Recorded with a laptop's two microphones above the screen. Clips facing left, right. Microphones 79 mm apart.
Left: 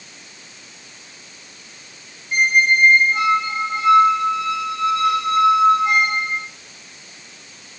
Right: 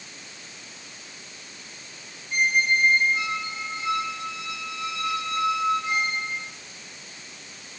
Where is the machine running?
No machine running in this recording.